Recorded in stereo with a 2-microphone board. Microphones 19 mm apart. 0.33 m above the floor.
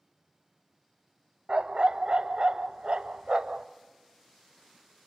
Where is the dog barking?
55° right (ahead or behind), 0.7 m.